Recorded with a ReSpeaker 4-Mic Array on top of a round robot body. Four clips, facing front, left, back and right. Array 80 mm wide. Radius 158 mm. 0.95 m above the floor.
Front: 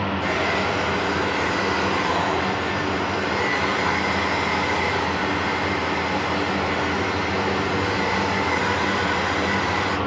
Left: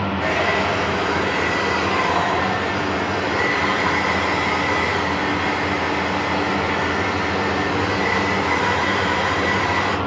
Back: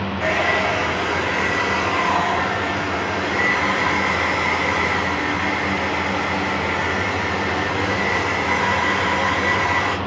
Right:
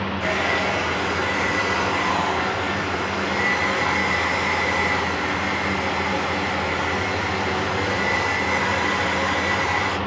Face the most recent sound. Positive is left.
turn(degrees=160)